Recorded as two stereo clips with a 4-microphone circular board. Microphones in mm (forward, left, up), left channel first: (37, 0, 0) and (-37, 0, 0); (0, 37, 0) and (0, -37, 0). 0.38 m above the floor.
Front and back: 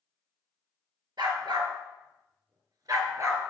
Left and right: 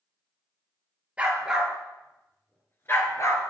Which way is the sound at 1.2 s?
160° right.